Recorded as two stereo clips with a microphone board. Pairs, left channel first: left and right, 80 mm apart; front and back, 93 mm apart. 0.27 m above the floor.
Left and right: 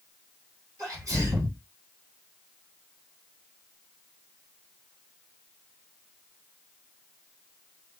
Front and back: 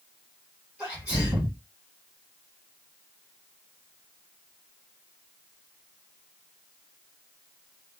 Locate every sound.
0.8 s a sneeze: 115° right, 2 m